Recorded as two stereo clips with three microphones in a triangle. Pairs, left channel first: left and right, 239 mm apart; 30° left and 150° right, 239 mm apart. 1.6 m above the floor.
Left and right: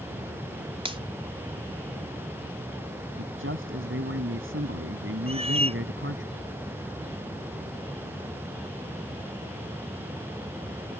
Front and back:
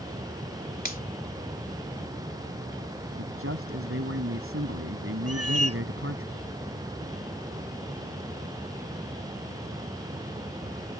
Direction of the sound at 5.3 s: 155° right.